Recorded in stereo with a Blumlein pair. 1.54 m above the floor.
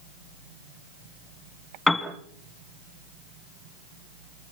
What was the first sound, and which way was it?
A piano, straight ahead.